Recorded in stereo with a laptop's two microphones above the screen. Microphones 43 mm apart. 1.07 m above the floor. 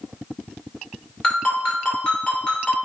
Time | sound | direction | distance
1.2 | a ringtone | 20° left (ahead or behind) | 2 m